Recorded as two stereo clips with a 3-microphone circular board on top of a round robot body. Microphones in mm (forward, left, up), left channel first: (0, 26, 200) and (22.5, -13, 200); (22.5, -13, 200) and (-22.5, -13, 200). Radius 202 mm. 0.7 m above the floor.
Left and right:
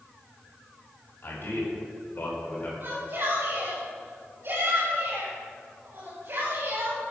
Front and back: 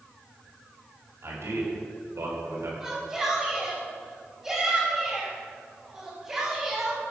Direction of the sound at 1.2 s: 160° left.